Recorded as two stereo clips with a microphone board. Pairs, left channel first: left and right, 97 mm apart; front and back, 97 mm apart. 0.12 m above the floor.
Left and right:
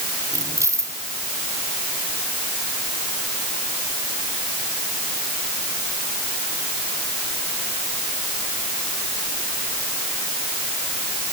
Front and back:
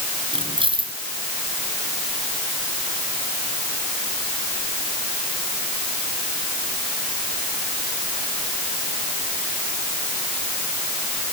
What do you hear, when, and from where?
0.3 s keys jangling: 150° right